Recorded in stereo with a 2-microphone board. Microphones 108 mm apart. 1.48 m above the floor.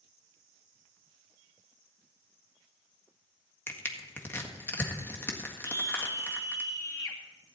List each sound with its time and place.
3.7 s crushing: 20° left (ahead or behind), 1.6 m
5.6 s a scream: 35° left (ahead or behind), 2.5 m